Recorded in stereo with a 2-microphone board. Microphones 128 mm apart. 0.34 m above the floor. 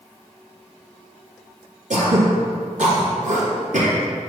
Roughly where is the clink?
I don't hear a clink.